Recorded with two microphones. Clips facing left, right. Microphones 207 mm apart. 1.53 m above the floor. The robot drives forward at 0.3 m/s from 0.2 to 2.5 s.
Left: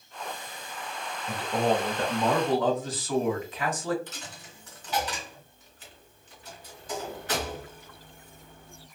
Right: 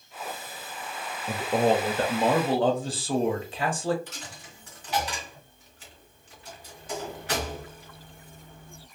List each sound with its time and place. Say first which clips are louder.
1.3 s a man speaking: right 3 dB; 50° right (ahead or behind), 0.5 m; by 4.0 s 30° right (ahead or behind), 0.8 m
4.1 s a dropped coin: even; 10° right (ahead or behind), 1.8 m